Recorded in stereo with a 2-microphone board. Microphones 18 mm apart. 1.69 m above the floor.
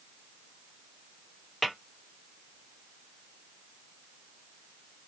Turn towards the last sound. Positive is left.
turn(degrees=10)  # may be behind; listen again after turning